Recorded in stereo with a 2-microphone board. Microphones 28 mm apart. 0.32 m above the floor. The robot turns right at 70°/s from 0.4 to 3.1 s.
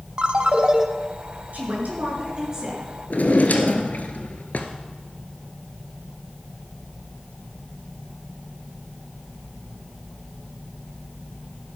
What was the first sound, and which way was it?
A ringtone, 60° right.